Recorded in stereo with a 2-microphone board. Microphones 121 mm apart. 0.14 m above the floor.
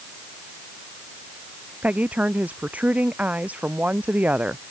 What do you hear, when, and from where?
1.8 s a woman speaking: 10° right (ahead or behind)